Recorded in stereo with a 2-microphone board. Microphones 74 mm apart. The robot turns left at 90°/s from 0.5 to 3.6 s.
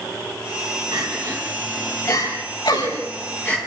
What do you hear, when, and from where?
0.9 s crying: 65° right (ahead or behind), 6 m; by 3.6 s 10° left (ahead or behind), 6 m